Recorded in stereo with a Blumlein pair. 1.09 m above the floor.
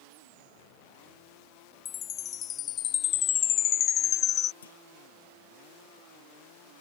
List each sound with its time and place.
1.9 s a chime: 30° left
4.6 s a clunk: 65° left